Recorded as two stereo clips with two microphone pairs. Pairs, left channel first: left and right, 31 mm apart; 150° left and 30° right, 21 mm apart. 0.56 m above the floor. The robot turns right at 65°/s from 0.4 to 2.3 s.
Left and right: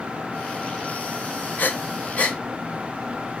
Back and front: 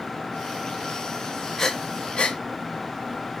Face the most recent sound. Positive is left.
turn(degrees=135)